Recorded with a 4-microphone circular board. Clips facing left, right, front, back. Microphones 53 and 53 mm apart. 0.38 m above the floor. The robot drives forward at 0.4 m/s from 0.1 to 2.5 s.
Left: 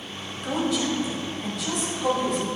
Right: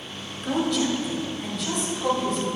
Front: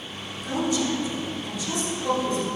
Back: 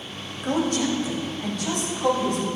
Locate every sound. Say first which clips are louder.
0.4 s a woman speaking: right 1 dB, back 2 dB; straight behind, 1.1 m